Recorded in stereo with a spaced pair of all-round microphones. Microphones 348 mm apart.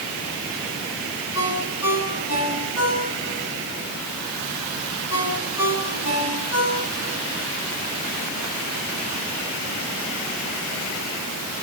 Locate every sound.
1.4 s a ringtone: 45° left (ahead or behind), 8 m